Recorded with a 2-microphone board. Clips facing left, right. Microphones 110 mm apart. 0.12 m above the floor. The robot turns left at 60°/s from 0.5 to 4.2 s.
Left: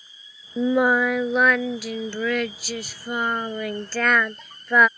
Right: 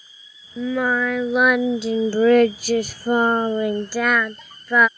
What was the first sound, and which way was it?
Singing, 40° left.